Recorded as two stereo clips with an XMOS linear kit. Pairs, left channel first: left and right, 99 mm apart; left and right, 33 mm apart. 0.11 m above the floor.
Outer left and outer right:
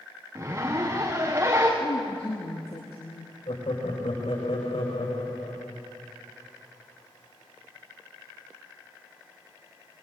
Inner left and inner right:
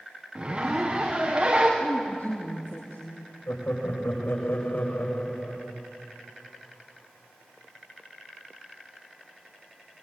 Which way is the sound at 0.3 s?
25° right (ahead or behind).